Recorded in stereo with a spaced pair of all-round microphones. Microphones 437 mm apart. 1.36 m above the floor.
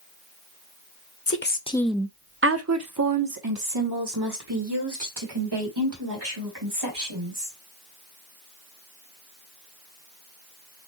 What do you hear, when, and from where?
1.3 s a woman speaking: 35° left (ahead or behind), 0.6 m; by 7.5 s 75° right (ahead or behind), 3.5 m